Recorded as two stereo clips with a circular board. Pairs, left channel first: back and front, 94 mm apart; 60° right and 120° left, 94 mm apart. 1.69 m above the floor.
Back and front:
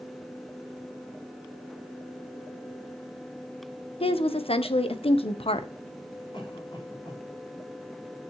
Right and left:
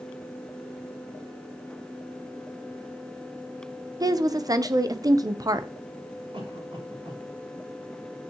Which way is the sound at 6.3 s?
145° left.